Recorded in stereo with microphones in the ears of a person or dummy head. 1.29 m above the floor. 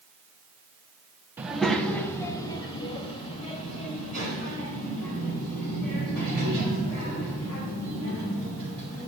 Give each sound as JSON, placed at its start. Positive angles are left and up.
{"t": 1.4, "sound": "a child speaking", "side_deg": -10, "distance_m": 0.7}